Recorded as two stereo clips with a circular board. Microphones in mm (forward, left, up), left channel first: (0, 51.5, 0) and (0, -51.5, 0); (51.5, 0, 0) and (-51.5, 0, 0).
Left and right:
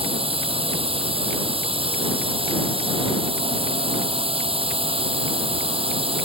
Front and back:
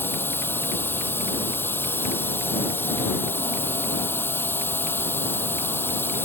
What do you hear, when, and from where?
0.0 s a drone: 70° right